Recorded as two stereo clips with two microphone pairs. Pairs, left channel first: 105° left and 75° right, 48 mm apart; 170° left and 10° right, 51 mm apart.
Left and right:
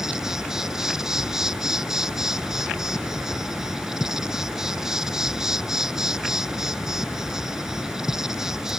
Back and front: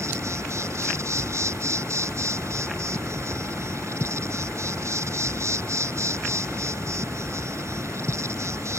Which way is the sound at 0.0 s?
5° left.